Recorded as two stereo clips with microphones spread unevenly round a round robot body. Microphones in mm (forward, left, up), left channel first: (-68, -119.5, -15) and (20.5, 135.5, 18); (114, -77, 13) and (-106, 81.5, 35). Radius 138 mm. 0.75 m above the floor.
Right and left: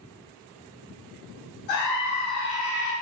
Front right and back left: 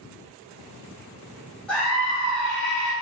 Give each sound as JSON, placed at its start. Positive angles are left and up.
{"t": 1.7, "sound": "a scream", "azimuth_deg": -120, "distance_m": 1.7}